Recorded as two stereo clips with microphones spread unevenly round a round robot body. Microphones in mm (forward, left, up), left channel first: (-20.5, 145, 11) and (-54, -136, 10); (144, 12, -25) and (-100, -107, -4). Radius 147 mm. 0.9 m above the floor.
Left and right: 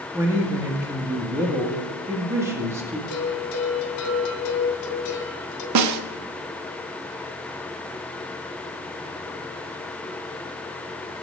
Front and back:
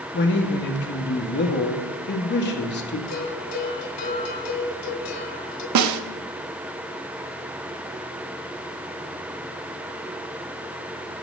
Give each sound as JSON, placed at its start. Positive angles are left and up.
{"t": 0.1, "sound": "a man speaking", "azimuth_deg": -15, "distance_m": 1.9}
{"t": 3.1, "sound": "a bell", "azimuth_deg": 70, "distance_m": 2.0}
{"t": 5.8, "sound": "a snare drum", "azimuth_deg": -125, "distance_m": 0.8}